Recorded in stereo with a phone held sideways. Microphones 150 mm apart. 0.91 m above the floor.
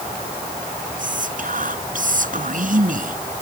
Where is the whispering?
65° right (ahead or behind).